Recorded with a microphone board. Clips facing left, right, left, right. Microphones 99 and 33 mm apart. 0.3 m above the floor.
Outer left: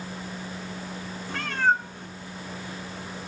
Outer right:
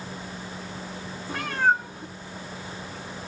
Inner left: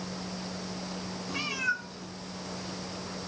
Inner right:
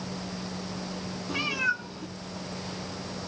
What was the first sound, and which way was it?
A cat meowing, 10° right (ahead or behind).